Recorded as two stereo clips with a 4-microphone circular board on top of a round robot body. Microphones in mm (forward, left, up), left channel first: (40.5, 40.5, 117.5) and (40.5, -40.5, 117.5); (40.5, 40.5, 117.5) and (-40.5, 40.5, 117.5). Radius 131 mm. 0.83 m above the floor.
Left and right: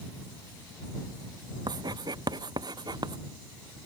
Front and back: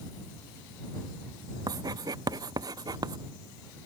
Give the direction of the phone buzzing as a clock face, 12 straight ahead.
I don't hear a phone buzzing.